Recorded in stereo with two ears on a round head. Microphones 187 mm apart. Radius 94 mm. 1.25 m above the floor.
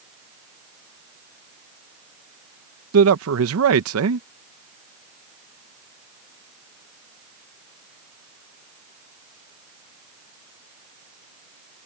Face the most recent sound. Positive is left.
turn(degrees=-80)